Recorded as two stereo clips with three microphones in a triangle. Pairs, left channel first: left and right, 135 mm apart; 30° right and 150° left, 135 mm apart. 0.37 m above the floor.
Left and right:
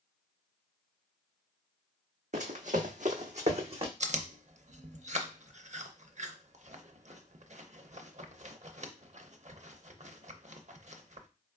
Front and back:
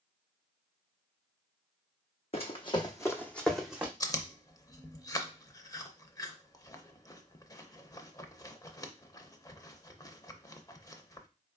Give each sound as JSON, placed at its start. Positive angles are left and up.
{"t": 2.3, "sound": "running footsteps", "azimuth_deg": -70, "distance_m": 1.0}
{"t": 4.0, "sound": "chewing", "azimuth_deg": -90, "distance_m": 0.5}